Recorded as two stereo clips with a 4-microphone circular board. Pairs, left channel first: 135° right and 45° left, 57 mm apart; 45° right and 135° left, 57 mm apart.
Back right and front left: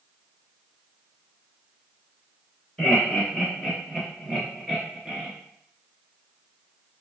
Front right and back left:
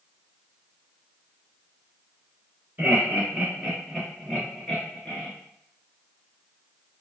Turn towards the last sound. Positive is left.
turn(degrees=-40)